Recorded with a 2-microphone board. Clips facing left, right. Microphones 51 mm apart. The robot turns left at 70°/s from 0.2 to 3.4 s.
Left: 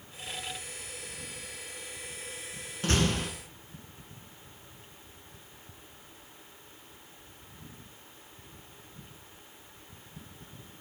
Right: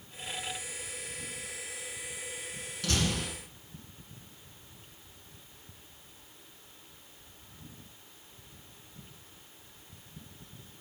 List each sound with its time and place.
2.8 s a door slam: 110° left, 1.5 m; by 3.3 s 75° left, 1.5 m